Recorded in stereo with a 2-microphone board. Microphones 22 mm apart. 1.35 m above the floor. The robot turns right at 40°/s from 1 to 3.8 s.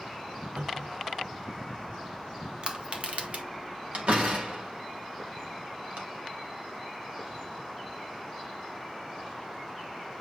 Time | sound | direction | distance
0.6 | a cupboard door | 65° right (ahead or behind) | 1.8 m
2.6 | crushing | 35° right (ahead or behind) | 1.7 m
3.9 | a door slam | 75° right (ahead or behind) | 2.5 m